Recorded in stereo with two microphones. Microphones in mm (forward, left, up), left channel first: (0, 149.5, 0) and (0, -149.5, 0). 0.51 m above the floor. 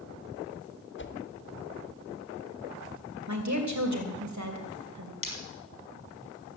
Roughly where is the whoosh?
Left.